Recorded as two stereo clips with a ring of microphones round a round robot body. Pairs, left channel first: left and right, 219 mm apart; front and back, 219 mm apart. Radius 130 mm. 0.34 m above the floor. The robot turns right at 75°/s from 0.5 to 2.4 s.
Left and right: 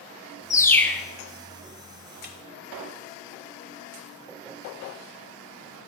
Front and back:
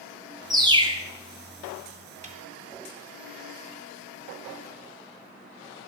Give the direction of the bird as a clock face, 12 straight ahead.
7 o'clock.